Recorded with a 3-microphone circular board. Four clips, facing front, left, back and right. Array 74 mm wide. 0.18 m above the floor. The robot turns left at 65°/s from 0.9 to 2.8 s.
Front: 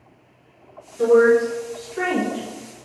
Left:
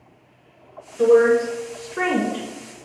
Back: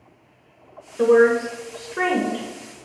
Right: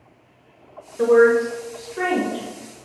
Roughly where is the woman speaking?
Behind right.